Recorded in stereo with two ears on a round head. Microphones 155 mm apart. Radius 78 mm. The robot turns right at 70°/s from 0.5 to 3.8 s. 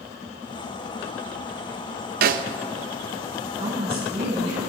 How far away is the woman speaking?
About 7.5 m.